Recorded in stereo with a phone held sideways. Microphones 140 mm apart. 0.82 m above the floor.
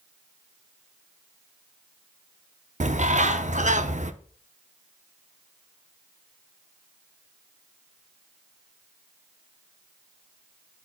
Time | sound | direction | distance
2.8 | a bird | 60° right (ahead or behind) | 0.6 m